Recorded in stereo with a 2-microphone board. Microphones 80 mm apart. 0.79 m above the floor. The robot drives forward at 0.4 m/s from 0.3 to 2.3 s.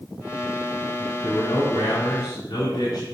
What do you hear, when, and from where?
1.2 s a man speaking: 70° left (ahead or behind), 2 m